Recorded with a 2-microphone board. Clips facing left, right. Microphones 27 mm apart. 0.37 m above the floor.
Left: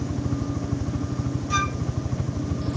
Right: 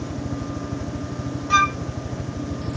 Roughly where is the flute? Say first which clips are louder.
Right 8 dB; right.